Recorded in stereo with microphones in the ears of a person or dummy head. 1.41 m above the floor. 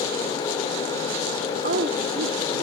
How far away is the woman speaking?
About 0.6 m.